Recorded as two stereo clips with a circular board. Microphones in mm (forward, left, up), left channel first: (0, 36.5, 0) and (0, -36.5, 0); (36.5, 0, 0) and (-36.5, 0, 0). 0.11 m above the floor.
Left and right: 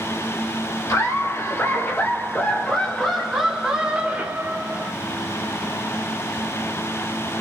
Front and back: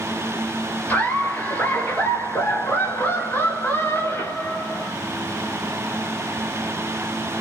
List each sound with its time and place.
0.9 s laughter: 60° left, 2 m; by 4.9 s 55° right, 1.8 m